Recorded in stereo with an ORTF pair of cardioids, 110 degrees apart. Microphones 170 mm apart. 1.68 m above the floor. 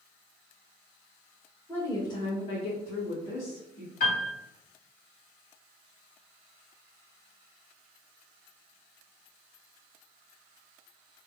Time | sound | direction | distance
1.7 | a woman speaking | 10° left | 0.9 m
4.0 | a piano | 50° left | 1.7 m